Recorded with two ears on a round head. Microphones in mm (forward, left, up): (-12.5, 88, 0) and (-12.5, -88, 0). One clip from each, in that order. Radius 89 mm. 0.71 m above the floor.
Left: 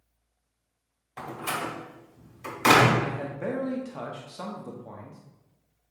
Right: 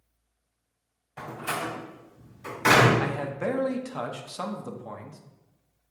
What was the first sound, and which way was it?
A door slam, 35° left (ahead or behind).